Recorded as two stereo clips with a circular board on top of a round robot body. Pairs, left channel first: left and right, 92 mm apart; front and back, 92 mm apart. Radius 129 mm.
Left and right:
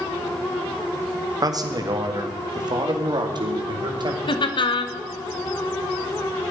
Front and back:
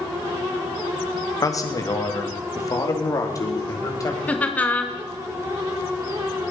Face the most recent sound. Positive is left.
turn(degrees=70)